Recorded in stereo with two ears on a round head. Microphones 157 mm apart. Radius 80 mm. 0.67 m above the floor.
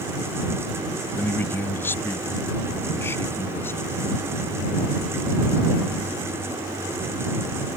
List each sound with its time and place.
1.2 s a man speaking: 10° left (ahead or behind); by 4.0 s 15° left (ahead or behind)